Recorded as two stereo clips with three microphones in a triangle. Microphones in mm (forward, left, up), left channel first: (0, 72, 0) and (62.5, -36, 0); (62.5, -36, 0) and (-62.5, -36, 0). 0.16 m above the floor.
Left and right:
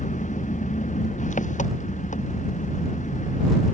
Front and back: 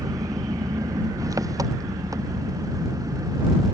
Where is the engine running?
120° left.